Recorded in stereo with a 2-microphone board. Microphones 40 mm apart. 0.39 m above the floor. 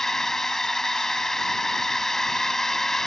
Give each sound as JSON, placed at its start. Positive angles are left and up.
{"t": 0.0, "sound": "a drone", "side_deg": 10}